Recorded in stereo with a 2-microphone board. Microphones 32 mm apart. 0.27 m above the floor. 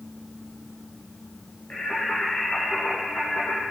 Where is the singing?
60° left (ahead or behind), 3 m.